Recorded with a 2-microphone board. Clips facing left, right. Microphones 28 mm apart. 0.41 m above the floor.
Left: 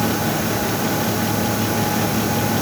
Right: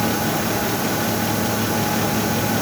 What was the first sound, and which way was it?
Only background noise.